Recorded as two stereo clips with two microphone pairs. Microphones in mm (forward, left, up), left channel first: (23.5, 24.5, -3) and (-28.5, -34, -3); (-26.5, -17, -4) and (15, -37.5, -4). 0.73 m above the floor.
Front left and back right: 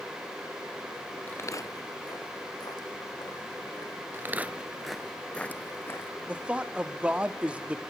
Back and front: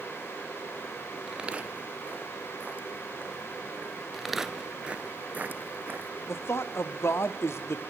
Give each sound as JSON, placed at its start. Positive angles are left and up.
{"t": 1.3, "sound": "footsteps", "azimuth_deg": 30, "distance_m": 0.7}
{"t": 4.1, "sound": "footsteps", "azimuth_deg": -115, "distance_m": 0.7}
{"t": 6.3, "sound": "a man speaking", "azimuth_deg": 155, "distance_m": 0.9}